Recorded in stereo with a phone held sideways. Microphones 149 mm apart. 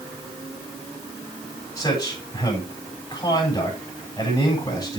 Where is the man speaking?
25° left (ahead or behind), 7 m.